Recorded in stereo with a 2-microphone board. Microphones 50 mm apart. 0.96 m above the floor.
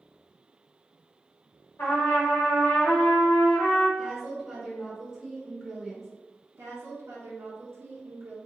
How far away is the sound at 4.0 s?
About 1.8 m.